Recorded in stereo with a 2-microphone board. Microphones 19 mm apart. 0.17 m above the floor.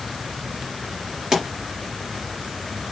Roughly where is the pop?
Right.